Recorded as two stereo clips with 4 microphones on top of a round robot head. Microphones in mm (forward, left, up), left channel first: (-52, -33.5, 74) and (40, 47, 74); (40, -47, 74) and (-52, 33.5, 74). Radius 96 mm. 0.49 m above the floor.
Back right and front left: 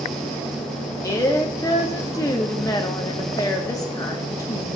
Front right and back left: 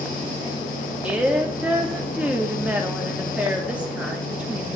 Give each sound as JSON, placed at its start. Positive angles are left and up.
{"t": 1.0, "sound": "a woman speaking", "azimuth_deg": -155, "distance_m": 0.9}